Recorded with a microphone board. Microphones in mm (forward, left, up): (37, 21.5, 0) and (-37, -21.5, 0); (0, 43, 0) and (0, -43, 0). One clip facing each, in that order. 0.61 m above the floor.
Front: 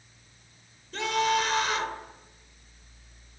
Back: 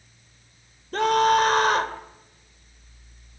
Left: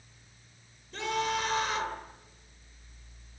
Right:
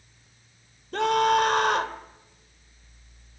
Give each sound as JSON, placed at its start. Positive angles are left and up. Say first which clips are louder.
{"t": 0.9, "sound": "a scream", "louder": "back 7 dB, right 10 dB", "azimuth_deg": -110, "distance_m": 2.0}